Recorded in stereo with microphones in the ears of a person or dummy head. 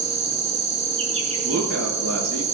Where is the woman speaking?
90° right, 7 m.